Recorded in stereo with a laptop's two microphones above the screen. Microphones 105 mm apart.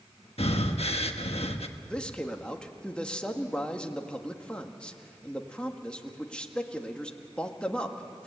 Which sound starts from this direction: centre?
A man speaking, at 1.9 s.